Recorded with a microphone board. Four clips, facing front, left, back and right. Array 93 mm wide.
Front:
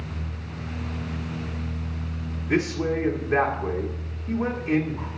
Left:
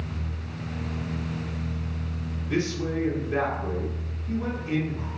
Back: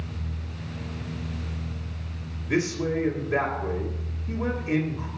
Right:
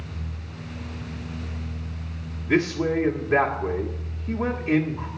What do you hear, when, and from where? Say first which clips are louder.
2.5 s a man speaking: right 6 dB, front 2 dB; 55° right, 1.6 m